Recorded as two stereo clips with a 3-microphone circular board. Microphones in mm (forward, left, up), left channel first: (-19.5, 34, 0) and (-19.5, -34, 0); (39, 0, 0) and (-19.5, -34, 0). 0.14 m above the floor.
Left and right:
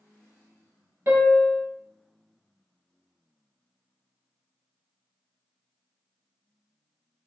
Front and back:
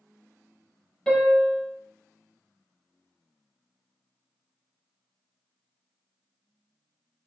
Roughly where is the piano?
Ahead right.